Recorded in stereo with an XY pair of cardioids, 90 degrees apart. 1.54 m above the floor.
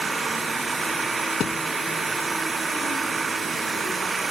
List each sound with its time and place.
0.0 s an engine running: 30° right
1.4 s a thud: 70° left